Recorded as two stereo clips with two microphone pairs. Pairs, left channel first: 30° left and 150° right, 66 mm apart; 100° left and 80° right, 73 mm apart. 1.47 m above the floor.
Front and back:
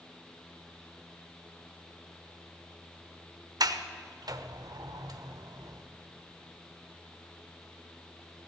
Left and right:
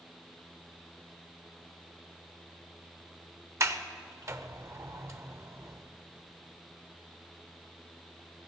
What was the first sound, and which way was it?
A sliding door, 130° right.